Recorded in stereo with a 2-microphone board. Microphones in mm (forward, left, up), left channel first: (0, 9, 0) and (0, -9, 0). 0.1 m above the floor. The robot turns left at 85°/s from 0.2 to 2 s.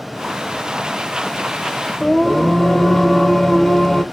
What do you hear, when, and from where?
2.0 s singing: 25° left (ahead or behind), 1.1 m